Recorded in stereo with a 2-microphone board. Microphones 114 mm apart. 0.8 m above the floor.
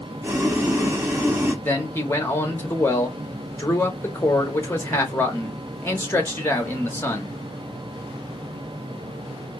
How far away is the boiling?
About 0.8 m.